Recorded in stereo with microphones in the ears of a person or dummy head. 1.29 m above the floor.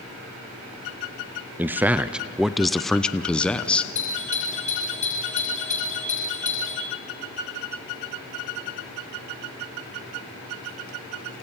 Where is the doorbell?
40° left (ahead or behind), 8.5 m.